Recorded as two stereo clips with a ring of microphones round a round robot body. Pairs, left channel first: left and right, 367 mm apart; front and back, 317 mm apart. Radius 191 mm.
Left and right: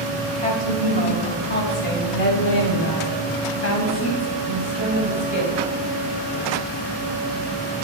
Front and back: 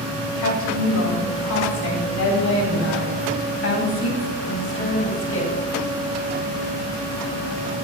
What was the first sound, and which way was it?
A woman speaking, 20° left.